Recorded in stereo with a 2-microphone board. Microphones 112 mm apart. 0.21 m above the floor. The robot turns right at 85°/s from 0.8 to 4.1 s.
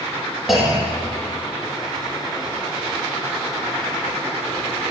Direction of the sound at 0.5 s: 5° right.